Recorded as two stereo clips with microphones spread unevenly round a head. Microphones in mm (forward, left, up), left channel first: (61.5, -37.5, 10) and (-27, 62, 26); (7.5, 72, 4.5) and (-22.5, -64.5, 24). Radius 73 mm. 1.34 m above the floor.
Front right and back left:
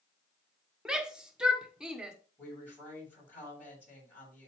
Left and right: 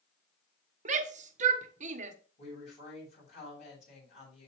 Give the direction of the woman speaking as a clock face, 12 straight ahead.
11 o'clock.